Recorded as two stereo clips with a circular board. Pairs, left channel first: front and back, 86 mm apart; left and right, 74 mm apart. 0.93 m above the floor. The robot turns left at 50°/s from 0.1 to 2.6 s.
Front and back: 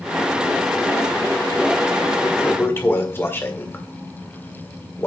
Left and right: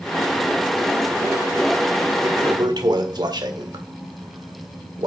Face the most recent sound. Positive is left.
turn(degrees=-65)